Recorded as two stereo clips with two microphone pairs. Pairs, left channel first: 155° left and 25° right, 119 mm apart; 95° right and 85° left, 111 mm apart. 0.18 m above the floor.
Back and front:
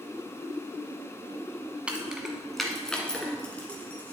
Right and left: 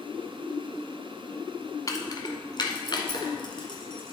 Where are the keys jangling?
100° right, 1.0 m; by 4.1 s 130° right, 2 m.